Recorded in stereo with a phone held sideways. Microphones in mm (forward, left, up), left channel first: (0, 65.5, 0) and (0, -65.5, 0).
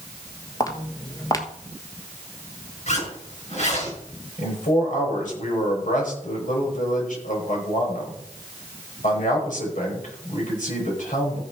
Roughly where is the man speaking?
Left.